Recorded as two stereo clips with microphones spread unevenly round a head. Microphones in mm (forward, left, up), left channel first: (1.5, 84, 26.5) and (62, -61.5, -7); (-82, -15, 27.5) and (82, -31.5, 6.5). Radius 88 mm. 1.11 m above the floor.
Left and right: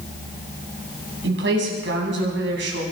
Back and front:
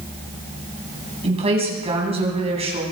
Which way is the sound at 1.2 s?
60° right.